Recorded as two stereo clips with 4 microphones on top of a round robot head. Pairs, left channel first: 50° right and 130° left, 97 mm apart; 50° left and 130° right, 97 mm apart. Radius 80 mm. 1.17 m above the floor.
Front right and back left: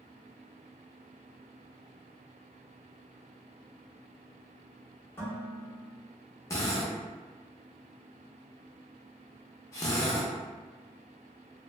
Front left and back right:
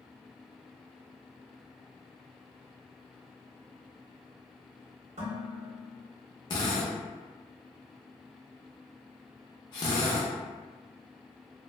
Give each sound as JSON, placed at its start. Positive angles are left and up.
{"t": 5.2, "sound": "dishes clattering", "azimuth_deg": -120, "distance_m": 1.1}
{"t": 6.5, "sound": "a drill", "azimuth_deg": 10, "distance_m": 0.6}